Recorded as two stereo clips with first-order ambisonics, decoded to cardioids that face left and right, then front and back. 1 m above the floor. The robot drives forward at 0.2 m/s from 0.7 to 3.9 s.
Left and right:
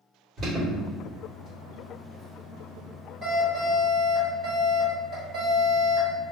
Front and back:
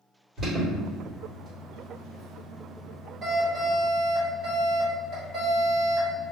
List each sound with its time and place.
0.4 s an alarm: 110° right, 1.4 m; by 6.3 s 145° right, 1.6 m